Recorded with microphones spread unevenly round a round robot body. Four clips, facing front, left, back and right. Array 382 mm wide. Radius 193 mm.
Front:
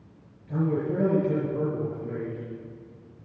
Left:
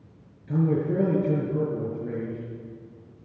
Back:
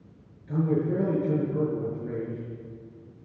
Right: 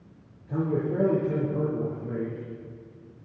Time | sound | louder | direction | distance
0.5 | a man speaking | left 3 dB, back 1 dB | 105° left | 6.5 m